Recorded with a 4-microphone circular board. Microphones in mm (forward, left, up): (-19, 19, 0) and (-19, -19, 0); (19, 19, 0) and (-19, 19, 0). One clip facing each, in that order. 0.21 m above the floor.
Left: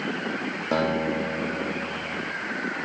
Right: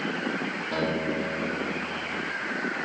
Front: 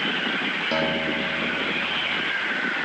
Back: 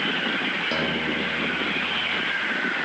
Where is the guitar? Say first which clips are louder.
Left 4 dB, front 1 dB; 80° left, 2.5 m.